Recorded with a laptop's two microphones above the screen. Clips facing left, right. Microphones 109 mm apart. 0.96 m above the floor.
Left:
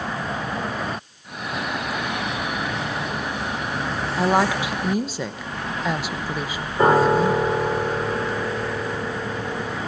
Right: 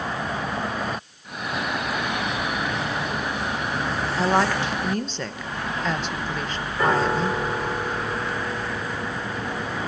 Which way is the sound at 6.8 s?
30° left (ahead or behind).